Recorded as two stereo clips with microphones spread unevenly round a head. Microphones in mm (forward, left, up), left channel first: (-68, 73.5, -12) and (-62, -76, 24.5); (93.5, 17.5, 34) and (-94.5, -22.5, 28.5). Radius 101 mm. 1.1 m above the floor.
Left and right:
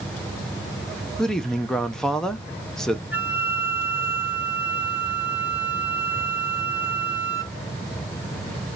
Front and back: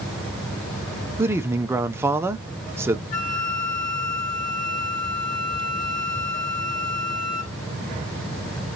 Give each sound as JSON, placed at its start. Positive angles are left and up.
{"t": 1.2, "sound": "a man speaking", "azimuth_deg": 135, "distance_m": 0.7}
{"t": 3.1, "sound": "a flute", "azimuth_deg": -25, "distance_m": 1.2}